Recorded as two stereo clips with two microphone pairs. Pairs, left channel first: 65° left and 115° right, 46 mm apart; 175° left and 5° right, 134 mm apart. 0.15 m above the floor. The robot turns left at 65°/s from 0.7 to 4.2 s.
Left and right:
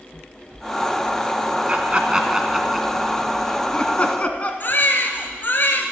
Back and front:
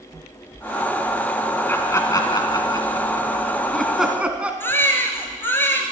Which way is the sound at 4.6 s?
105° left.